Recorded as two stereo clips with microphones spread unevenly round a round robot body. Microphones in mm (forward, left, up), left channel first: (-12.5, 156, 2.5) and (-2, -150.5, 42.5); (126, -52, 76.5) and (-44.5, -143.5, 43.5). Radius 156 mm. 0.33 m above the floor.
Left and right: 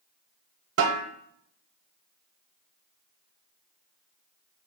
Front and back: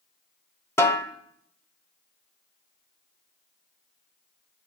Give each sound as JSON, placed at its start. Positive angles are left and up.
{"t": 0.8, "sound": "a snare drum", "azimuth_deg": -55, "distance_m": 0.7}